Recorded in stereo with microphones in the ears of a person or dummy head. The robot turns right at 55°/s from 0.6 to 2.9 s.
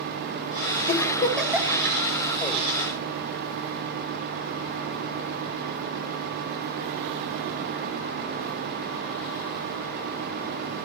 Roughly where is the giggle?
Left.